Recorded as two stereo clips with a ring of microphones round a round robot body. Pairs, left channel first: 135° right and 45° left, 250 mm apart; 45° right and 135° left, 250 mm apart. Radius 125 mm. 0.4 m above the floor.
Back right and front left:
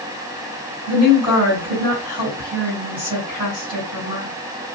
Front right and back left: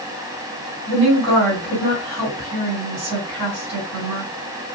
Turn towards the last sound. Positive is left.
turn(degrees=125)